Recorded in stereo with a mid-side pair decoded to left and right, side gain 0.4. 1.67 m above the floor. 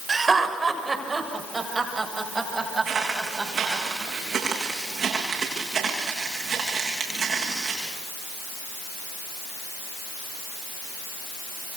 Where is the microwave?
I don't hear a microwave.